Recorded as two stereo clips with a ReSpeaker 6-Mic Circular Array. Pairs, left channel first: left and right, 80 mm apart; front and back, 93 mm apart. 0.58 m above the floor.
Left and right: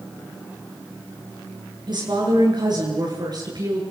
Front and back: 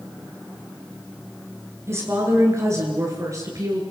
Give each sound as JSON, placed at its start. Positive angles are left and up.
{"t": 1.9, "sound": "a woman speaking", "azimuth_deg": -120, "distance_m": 7.5}